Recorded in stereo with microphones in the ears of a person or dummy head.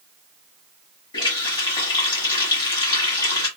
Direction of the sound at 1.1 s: 20° left (ahead or behind).